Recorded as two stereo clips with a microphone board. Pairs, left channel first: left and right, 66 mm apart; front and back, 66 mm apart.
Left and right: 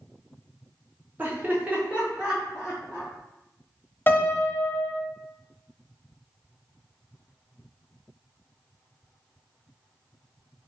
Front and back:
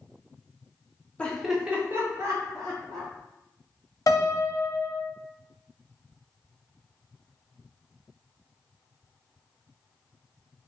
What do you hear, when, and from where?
1.2 s laughter: 55° right, 0.7 m; by 3.1 s 170° right, 1.6 m
4.1 s a piano: 30° left, 0.5 m